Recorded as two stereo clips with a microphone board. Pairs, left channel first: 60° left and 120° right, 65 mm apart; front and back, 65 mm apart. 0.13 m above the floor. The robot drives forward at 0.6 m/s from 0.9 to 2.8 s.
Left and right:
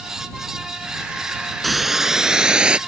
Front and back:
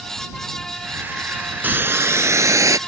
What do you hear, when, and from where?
1.6 s a hiss: 150° left; by 2.8 s 170° left